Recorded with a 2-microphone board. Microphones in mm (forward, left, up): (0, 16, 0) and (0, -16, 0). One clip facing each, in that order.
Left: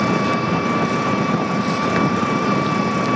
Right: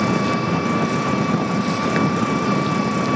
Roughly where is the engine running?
Centre.